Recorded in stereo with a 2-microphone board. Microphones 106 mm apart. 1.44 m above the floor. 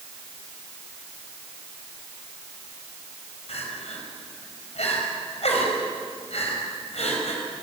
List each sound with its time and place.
3.5 s crying: 85° left, 5 m